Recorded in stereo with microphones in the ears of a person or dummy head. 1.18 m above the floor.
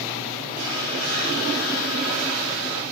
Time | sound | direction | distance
0.6 | a hiss | 90° right | 6.5 m